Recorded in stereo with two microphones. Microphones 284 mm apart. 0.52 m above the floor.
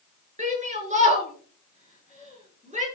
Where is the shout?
25° right (ahead or behind), 8 m.